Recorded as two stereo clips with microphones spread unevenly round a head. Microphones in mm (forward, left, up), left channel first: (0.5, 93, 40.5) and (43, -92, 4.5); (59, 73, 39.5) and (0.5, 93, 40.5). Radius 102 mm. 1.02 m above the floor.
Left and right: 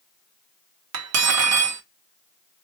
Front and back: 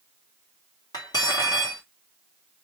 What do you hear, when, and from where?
0.9 s cutlery clinking: 80° right, 0.6 m